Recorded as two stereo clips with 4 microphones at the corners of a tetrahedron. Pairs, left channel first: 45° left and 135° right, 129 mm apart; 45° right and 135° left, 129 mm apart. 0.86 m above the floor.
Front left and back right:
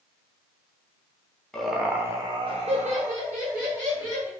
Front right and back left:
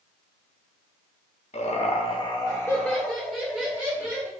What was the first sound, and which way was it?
Laughter, 40° right.